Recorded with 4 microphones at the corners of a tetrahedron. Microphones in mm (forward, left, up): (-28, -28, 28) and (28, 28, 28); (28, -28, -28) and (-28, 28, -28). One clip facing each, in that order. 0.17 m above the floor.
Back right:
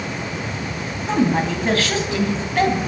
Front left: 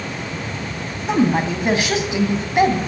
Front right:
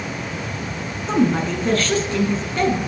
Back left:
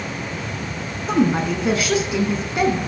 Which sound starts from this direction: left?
A woman speaking, at 1.1 s.